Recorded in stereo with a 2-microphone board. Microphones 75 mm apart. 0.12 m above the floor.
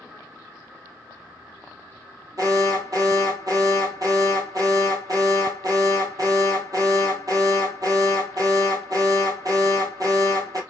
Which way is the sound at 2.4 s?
50° right (ahead or behind).